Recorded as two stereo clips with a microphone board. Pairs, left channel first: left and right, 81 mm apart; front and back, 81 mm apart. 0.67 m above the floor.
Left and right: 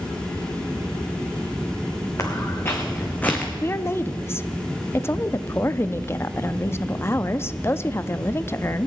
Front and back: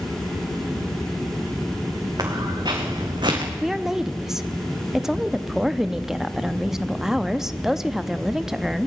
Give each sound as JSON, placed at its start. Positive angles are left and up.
{"t": 2.2, "sound": "footsteps", "azimuth_deg": 145, "distance_m": 3.0}
{"t": 3.6, "sound": "a woman speaking", "azimuth_deg": 100, "distance_m": 0.5}